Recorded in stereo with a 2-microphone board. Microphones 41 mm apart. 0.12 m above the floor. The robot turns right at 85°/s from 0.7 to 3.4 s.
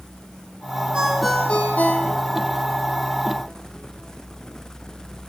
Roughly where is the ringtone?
Right.